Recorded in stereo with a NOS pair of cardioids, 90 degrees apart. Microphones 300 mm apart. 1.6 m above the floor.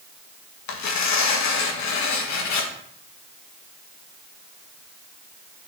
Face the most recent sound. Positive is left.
turn(degrees=70)